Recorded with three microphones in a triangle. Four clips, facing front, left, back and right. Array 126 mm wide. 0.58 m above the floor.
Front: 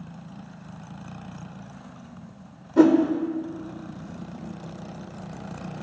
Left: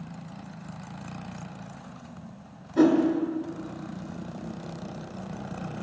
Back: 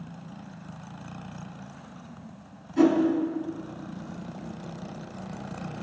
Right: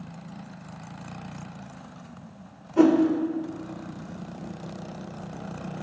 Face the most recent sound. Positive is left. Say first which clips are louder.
# right 2 dB, front 4 dB
turn(degrees=-10)